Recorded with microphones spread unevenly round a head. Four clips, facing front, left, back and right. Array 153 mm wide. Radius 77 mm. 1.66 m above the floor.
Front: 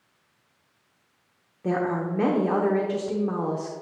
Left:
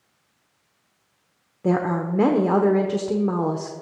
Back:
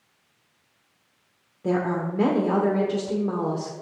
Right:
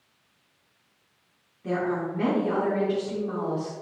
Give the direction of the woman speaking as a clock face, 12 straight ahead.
9 o'clock.